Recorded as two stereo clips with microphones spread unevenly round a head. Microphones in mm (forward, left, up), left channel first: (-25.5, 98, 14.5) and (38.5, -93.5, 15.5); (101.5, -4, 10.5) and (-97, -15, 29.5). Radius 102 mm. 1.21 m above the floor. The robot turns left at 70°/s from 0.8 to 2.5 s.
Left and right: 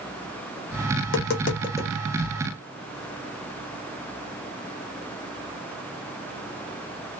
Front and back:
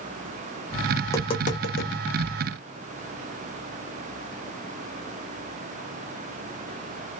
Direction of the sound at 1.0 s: 85° left.